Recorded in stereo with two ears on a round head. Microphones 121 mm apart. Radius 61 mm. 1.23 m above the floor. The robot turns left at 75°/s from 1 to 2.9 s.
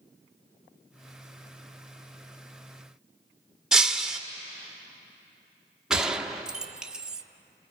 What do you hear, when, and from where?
3.7 s breaking glass: 5° right (ahead or behind), 0.9 m
5.9 s a gunshot: 5° right (ahead or behind), 0.8 m